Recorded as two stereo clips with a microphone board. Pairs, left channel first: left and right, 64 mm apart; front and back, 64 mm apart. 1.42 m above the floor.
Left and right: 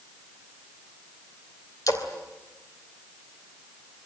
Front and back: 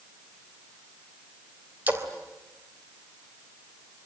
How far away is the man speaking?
No man speaking in this recording.